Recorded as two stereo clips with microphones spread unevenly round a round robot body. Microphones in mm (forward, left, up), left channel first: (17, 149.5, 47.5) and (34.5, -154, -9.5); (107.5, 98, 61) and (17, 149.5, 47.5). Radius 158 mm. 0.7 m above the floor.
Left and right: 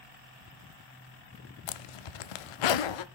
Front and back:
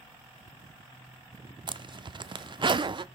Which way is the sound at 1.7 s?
100° left.